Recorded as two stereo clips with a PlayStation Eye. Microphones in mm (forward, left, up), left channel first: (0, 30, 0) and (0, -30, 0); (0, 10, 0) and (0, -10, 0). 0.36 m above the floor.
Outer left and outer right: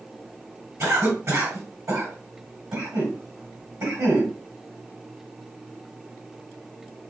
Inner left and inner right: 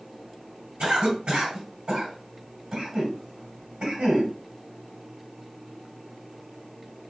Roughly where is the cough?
Right.